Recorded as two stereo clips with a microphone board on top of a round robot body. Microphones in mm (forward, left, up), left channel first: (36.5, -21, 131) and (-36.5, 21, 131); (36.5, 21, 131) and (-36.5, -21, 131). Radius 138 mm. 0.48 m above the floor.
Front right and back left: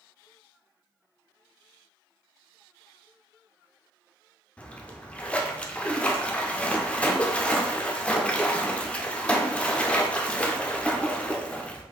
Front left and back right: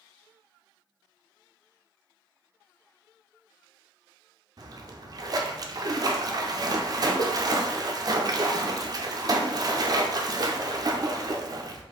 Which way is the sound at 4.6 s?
105° right.